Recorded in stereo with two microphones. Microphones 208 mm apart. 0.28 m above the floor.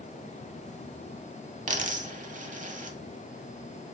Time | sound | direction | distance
1.7 | a dropped coin | 40° right (ahead or behind) | 0.7 m